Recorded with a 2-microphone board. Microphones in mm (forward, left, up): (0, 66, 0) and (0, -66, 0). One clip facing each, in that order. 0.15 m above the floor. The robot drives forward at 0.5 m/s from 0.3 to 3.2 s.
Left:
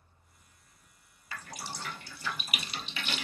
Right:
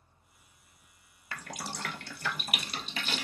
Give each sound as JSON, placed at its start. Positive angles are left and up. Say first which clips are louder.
{"t": 1.3, "sound": "dripping", "louder": "right 2 dB", "side_deg": -65, "distance_m": 0.6}